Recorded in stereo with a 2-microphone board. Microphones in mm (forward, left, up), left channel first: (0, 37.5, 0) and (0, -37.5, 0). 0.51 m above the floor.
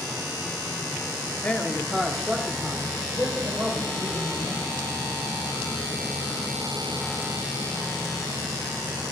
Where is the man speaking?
20° left (ahead or behind), 0.8 m; by 4.8 s 30° right (ahead or behind), 3.5 m.